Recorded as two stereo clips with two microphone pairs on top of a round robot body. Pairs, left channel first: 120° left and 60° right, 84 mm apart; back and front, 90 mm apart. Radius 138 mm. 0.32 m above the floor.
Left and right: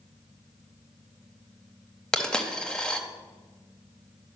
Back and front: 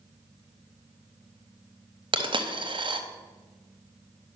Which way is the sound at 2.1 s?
35° left.